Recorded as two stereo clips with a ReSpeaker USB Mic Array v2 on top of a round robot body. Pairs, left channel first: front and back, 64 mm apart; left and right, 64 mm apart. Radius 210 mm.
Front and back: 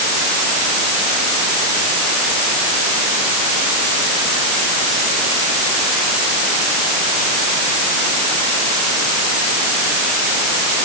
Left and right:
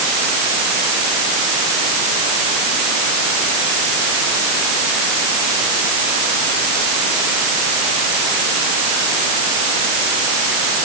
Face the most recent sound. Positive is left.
No sound to turn to.